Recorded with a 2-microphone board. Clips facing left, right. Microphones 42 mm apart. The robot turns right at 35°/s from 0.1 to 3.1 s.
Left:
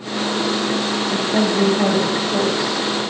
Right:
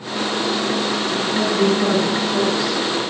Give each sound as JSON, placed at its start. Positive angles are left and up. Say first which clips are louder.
{"t": 1.1, "sound": "a woman speaking", "louder": "left 2 dB", "azimuth_deg": 105, "distance_m": 1.7}